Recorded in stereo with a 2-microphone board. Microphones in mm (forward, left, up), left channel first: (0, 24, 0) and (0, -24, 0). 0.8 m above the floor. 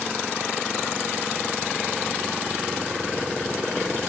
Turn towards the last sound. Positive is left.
No sound to turn to.